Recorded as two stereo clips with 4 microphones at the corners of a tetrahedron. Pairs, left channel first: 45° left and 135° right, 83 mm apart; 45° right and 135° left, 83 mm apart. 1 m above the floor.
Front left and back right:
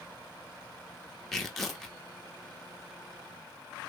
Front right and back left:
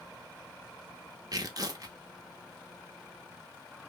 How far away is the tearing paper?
About 0.9 m.